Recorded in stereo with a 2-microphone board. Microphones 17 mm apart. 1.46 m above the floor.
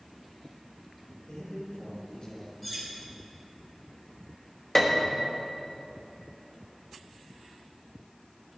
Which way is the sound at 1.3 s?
60° left (ahead or behind).